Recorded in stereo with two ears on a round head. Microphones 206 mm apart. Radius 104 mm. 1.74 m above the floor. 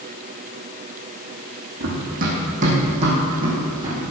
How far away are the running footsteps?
About 5.5 m.